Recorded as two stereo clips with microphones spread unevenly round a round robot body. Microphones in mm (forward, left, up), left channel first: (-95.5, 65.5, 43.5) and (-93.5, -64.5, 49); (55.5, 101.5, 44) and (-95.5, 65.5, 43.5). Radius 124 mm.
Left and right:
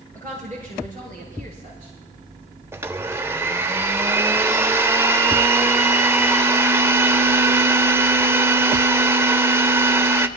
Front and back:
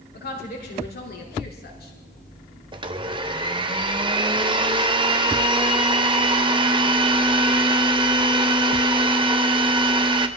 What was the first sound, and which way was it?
A woman speaking, 15° left.